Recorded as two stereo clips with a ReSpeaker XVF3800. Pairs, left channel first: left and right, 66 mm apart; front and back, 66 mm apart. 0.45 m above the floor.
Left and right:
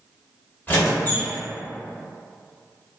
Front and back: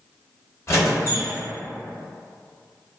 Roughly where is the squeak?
Ahead left.